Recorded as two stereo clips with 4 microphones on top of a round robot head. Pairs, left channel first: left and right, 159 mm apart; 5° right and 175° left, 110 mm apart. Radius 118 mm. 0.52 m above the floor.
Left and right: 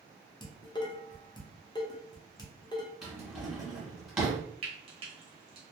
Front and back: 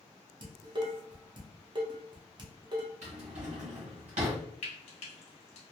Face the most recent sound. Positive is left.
turn(degrees=-30)